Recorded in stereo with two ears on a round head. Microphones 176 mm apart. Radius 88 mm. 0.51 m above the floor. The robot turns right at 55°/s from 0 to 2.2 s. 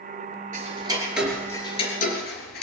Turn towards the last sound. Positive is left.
turn(degrees=50)  # may be behind; listen again after turning